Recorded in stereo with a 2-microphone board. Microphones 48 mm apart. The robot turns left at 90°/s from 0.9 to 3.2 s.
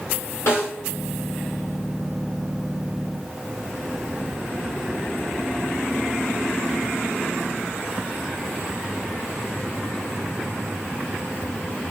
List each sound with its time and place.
0.5 s a snare drum: 65° left (ahead or behind), 1.7 m